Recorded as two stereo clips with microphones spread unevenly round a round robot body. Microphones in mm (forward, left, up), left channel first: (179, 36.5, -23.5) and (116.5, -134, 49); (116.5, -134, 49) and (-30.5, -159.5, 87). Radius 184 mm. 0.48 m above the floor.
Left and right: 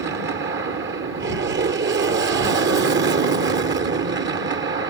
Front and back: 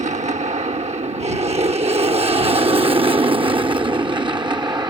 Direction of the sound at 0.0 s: 140° right.